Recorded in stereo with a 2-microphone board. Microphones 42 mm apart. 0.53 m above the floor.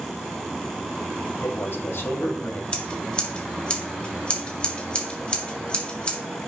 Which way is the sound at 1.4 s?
75° left (ahead or behind).